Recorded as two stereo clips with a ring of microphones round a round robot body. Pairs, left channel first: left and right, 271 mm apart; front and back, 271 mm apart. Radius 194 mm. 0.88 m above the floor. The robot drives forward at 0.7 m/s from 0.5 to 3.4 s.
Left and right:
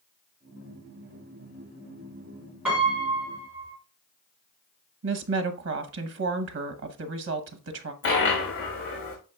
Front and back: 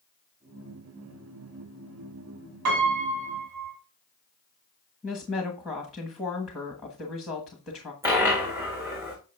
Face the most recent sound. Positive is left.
turn(degrees=100)